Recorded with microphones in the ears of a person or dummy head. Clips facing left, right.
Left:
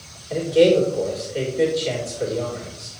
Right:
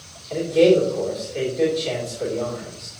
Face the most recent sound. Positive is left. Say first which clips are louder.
# even
turn(degrees=10)  # may be behind; listen again after turning